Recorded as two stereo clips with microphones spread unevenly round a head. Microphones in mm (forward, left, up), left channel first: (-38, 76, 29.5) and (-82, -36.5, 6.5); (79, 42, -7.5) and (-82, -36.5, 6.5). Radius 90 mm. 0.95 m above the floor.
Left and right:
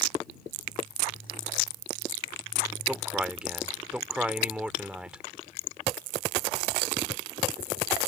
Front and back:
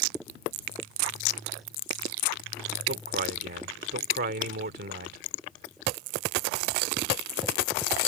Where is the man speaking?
165° left.